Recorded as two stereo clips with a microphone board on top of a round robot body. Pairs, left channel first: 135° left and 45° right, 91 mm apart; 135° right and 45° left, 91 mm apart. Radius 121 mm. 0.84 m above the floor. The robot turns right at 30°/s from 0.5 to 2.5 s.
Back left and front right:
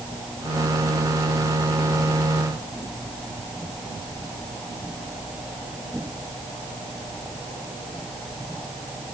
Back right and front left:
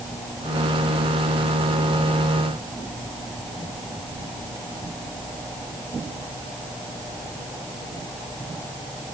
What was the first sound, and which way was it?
Only background noise.